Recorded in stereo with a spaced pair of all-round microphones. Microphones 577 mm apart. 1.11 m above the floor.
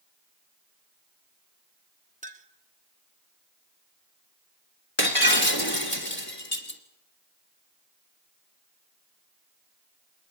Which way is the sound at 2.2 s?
10° right (ahead or behind).